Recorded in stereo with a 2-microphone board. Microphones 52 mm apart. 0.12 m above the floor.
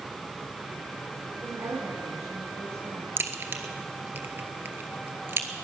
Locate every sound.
1.3 s a woman speaking: 70° right (ahead or behind), 6 m; by 3.1 s 55° right (ahead or behind), 5.5 m
3.2 s a crack: 40° right (ahead or behind), 1.3 m